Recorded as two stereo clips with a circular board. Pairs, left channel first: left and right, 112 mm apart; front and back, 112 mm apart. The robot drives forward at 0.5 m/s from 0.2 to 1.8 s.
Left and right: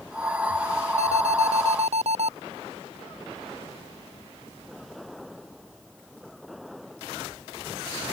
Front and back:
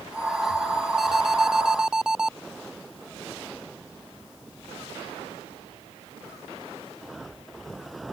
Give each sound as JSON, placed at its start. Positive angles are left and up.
{"t": 1.0, "sound": "an alarm", "azimuth_deg": -95}